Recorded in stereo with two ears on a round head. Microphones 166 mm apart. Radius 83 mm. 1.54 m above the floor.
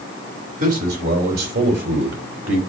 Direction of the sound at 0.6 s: 45° right (ahead or behind).